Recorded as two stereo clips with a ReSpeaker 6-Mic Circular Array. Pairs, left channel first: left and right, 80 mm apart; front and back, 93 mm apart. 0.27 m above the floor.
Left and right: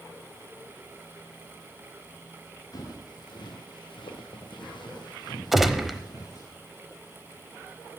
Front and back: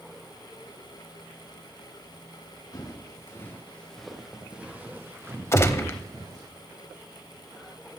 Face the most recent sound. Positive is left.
turn(degrees=-5)